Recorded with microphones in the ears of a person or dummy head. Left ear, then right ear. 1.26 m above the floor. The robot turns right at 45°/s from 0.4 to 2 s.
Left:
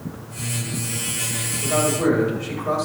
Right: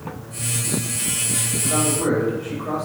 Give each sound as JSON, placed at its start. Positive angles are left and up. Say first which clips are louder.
{"t": 1.6, "sound": "a man speaking", "louder": "left 3 dB", "side_deg": 15, "distance_m": 5.0}